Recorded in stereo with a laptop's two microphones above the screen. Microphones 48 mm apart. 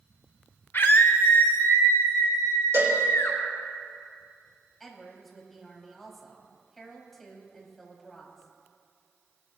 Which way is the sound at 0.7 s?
55° left (ahead or behind).